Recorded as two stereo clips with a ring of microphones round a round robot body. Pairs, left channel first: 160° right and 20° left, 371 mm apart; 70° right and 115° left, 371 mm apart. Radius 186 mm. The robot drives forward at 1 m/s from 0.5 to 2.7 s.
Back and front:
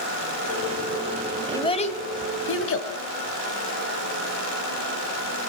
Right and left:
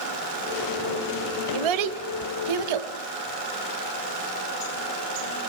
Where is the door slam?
I don't hear a door slam.